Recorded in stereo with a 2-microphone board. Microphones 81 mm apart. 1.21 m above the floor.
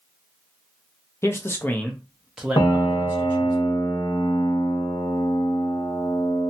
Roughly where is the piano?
Left.